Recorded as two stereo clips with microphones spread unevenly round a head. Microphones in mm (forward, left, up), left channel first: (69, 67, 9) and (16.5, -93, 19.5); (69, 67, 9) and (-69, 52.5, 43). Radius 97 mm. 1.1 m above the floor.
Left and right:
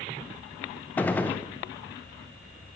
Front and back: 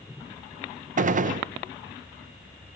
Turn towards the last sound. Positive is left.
turn(degrees=150)